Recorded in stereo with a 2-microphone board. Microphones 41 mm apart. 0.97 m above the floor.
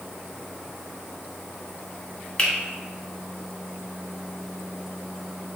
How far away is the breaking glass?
No breaking glass in this recording.